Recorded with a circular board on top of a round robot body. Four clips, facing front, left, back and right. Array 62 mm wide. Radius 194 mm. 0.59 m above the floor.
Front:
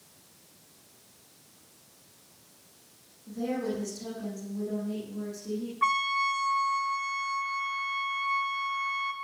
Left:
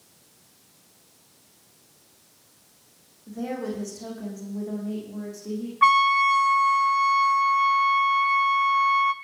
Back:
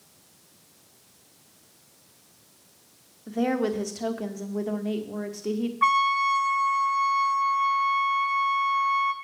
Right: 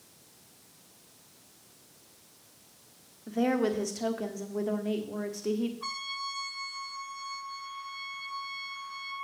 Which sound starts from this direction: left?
A trumpet, at 5.8 s.